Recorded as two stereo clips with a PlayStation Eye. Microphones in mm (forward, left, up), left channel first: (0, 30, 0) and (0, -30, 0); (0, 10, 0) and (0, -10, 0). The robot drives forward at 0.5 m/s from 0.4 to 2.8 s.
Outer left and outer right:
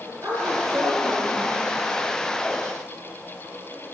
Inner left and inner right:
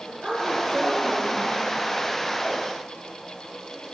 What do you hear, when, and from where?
0.2 s a woman speaking: 70° right (ahead or behind), 5 m; by 1.6 s 75° right (ahead or behind), 5 m